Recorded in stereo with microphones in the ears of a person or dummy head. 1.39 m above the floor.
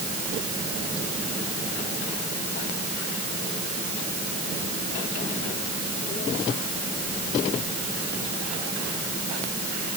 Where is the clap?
No clap in this recording.